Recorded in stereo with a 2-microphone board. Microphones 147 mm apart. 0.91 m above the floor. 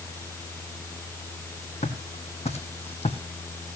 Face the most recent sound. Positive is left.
turn(degrees=40)  # may be behind; listen again after turning